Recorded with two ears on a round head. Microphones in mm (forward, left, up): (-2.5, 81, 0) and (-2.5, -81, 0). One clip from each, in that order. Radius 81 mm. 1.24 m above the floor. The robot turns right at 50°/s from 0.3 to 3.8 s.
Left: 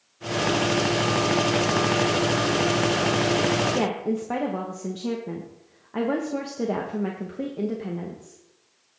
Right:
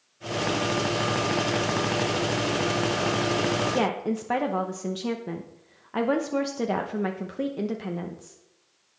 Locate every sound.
3.7 s a woman speaking: 40° right (ahead or behind), 0.8 m; by 8.4 s 35° right (ahead or behind), 0.8 m